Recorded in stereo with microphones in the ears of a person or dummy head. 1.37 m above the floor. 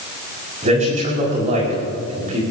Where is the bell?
I don't hear a bell.